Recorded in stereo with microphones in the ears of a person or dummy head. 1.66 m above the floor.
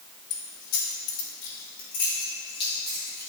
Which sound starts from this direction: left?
Keys jangling, at 0.3 s.